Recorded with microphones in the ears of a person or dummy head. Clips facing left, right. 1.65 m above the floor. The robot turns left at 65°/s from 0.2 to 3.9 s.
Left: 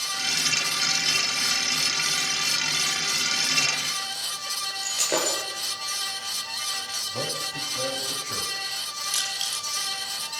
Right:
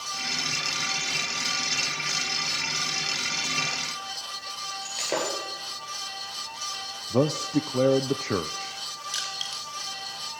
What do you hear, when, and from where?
4.8 s breaking glass: 10° left (ahead or behind), 8.5 m
7.1 s a man speaking: 80° right, 0.8 m
9.1 s crushing: centre (ahead or behind), 3.5 m